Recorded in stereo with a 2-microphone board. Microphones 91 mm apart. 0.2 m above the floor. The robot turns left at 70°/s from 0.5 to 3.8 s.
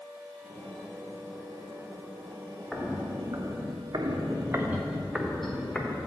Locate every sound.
2.7 s footsteps: 5° right (ahead or behind), 1.7 m; by 6.1 s 15° left (ahead or behind), 1.7 m